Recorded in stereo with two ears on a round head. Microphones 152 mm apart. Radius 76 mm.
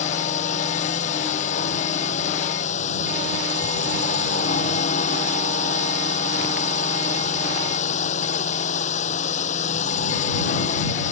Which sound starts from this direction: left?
A drone, at 0.0 s.